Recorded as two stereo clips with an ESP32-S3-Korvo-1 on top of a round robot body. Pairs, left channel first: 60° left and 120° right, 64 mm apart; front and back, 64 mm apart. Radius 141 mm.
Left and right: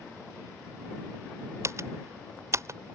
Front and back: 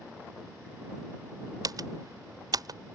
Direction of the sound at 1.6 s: 165° right.